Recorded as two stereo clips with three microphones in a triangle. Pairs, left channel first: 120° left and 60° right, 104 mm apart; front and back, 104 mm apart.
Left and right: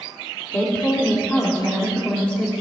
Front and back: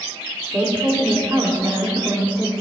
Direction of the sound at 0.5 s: 150° left.